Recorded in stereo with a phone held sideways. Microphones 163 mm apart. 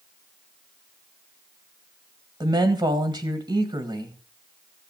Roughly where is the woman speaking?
Right.